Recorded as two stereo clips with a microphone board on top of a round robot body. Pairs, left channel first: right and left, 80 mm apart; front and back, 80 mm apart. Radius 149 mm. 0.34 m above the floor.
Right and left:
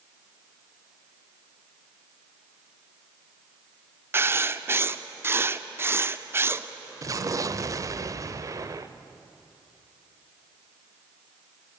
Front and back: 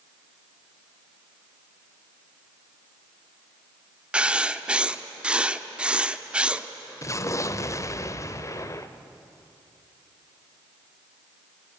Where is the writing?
115° left, 1.1 m.